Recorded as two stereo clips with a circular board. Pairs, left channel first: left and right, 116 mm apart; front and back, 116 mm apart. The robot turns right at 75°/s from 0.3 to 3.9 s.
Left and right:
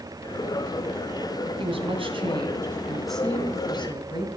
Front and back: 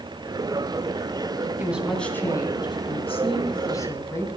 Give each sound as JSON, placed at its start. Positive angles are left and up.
{"t": 1.6, "sound": "a woman speaking", "azimuth_deg": -110, "distance_m": 2.5}